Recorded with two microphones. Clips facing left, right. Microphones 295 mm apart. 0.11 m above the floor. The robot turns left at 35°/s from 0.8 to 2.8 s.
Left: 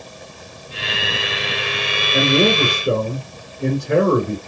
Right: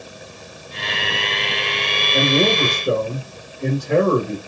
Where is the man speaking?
15° left (ahead or behind), 1.7 m; by 4.4 s 25° left (ahead or behind), 1.7 m.